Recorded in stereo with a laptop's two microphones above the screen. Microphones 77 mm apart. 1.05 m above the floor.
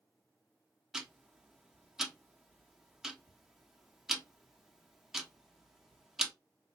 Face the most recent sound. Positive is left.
turn(degrees=-5)  # may be behind; listen again after turning